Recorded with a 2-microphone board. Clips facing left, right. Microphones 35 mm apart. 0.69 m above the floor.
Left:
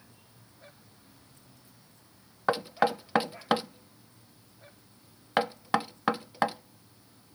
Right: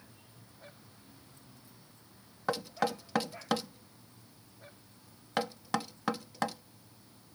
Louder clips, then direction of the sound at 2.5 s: Left 6 dB; 25° left (ahead or behind).